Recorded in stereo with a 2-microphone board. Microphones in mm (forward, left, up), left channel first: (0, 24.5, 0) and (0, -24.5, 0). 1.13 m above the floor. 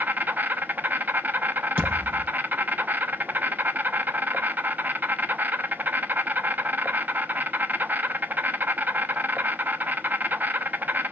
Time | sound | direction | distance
0.0 | an insect | 40° right (ahead or behind) | 0.8 m
1.8 | a thud | 30° right (ahead or behind) | 4 m